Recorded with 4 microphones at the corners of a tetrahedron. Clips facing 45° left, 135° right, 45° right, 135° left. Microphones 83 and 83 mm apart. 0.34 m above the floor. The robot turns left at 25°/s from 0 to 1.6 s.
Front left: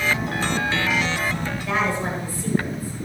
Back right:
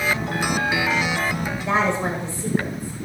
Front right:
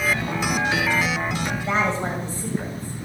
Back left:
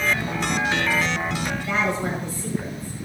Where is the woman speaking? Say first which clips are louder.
Back right 3 dB, front right 2 dB; 80° right, 1.6 m.